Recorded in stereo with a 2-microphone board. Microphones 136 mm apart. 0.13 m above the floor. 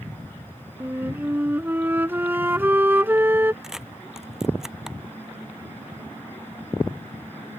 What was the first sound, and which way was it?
A flute, 15° right (ahead or behind).